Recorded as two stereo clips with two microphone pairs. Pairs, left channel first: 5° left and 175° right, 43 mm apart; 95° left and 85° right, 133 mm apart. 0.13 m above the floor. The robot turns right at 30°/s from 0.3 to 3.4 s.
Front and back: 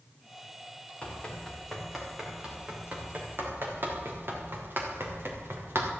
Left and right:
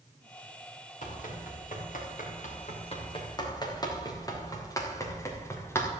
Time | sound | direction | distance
1.0 | running footsteps | 70° left | 5 m